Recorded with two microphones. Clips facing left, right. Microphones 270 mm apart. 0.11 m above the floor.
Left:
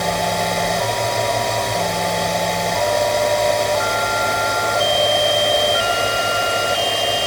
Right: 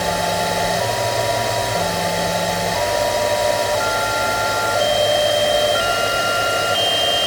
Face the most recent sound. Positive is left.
No sound to turn to.